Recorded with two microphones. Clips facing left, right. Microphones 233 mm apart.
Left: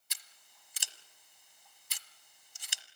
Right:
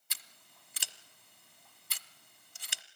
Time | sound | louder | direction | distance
0.1 | scissors | right 4 dB | 60° right (ahead or behind) | 1.2 m